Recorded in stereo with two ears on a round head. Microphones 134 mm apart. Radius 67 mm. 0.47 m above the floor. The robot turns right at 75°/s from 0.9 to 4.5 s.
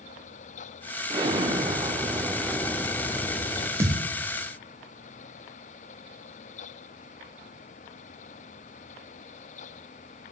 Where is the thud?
15° right (ahead or behind), 0.6 m; by 4.1 s 5° left (ahead or behind), 0.6 m.